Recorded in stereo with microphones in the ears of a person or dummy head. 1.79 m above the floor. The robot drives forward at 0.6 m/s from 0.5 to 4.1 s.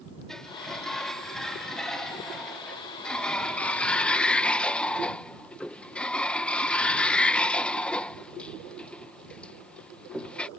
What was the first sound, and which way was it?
A sliding door, centre (ahead or behind).